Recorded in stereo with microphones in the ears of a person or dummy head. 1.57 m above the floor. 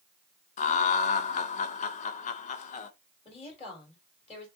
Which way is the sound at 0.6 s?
45° left (ahead or behind).